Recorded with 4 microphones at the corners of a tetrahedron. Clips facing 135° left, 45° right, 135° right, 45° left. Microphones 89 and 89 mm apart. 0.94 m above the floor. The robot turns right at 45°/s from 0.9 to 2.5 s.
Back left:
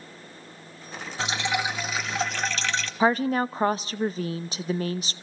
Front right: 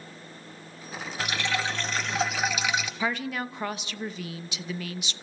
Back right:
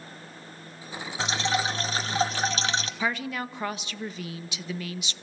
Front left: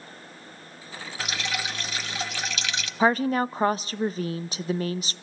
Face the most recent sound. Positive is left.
turn(degrees=90)